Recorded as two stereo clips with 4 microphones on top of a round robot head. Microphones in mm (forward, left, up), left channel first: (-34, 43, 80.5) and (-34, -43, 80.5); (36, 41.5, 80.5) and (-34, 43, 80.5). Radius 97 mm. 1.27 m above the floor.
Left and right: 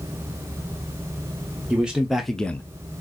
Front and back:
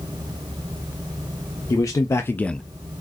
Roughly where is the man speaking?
Ahead.